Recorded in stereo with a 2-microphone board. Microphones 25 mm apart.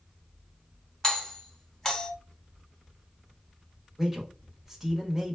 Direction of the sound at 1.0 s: 20° left (ahead or behind).